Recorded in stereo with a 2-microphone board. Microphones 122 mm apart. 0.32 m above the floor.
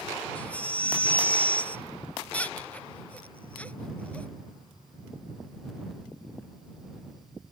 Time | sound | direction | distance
0.3 | a baby crying | 10° left (ahead or behind) | ?